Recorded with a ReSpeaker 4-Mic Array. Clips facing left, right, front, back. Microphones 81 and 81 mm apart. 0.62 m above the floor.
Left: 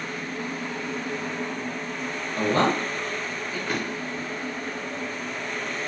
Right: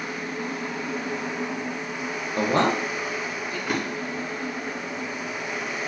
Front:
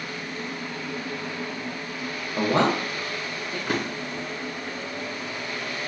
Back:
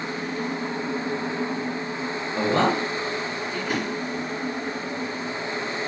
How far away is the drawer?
About 1.4 m.